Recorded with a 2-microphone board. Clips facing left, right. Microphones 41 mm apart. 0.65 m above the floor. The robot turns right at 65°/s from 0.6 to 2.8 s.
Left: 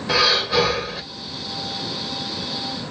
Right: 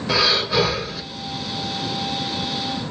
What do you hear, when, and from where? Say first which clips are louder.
0.1 s breathing: left 1 dB; centre (ahead or behind), 1.9 m; by 1.0 s 30° left (ahead or behind), 1.9 m